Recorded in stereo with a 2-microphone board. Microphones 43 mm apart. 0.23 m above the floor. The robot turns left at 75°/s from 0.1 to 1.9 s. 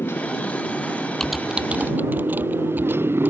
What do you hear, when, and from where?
0.0 s a motorcycle: 70° left; by 3.3 s 65° right
1.2 s typing on a keyboard: 10° left (ahead or behind); by 3.3 s 45° right (ahead or behind)